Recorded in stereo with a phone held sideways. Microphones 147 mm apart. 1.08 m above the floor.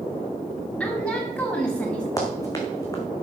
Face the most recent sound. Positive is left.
turn(degrees=25)  # may be behind; listen again after turning